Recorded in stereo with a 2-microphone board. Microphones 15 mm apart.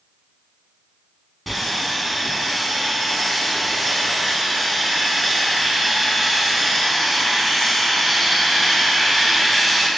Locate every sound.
1.5 s sawing: centre (ahead or behind), 0.7 m